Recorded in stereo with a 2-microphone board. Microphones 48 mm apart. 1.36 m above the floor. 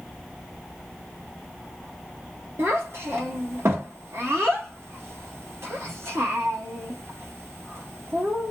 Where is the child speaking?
70° right (ahead or behind), 1.4 m.